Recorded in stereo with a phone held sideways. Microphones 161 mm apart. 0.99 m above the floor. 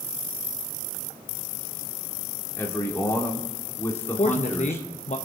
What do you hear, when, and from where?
2.6 s a man speaking: 15° left (ahead or behind), 2.5 m
4.2 s a man speaking: 50° left (ahead or behind), 0.8 m